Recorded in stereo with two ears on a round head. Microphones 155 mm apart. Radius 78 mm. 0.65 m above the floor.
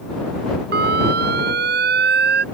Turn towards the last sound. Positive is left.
turn(degrees=-65)  # may be behind; listen again after turning